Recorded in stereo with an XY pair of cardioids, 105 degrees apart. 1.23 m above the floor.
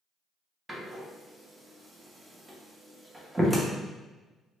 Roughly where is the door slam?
Ahead.